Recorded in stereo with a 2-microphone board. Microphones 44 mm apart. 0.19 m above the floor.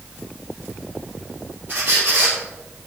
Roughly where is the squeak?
Right.